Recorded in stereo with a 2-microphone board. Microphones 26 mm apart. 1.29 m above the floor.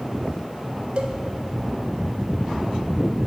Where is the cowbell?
45° right (ahead or behind), 1.2 m.